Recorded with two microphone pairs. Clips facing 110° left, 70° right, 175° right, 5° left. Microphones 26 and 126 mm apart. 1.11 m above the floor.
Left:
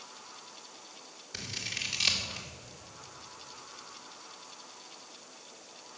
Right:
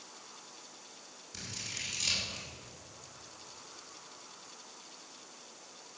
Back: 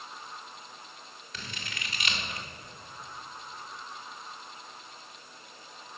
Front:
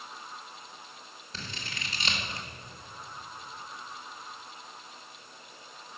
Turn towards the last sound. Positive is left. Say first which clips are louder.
# left 5 dB, front 1 dB
turn(degrees=60)